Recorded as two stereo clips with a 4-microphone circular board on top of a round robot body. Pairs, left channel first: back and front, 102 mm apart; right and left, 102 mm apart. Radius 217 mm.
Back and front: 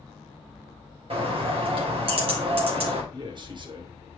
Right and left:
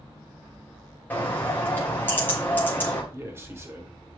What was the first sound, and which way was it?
A bird, 20° right.